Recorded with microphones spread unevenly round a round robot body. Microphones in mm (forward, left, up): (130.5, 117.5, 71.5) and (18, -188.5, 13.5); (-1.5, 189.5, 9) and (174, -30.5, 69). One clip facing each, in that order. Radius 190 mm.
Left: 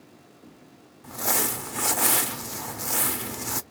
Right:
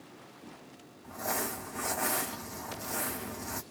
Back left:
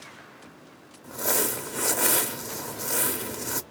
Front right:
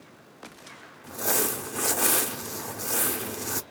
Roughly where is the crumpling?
Ahead left.